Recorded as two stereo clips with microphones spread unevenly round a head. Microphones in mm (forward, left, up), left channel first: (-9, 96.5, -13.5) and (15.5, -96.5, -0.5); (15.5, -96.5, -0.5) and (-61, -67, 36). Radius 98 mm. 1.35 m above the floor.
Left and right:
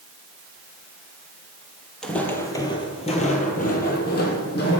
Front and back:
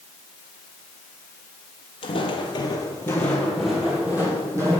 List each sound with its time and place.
2.0 s footsteps: 10° left, 1.6 m; by 4.8 s 130° left, 2.5 m